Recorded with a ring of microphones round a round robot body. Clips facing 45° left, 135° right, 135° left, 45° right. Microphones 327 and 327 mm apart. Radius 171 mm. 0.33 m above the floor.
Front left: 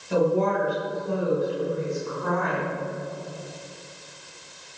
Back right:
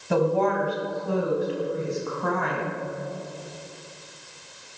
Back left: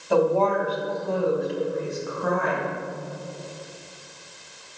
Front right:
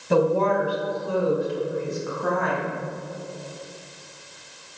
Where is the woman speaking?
110° right, 3 m; by 2.7 s 140° right, 3.5 m.